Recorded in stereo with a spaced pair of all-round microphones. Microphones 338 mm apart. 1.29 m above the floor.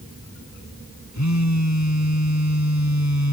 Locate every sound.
1.1 s a phone buzzing: 55° left (ahead or behind)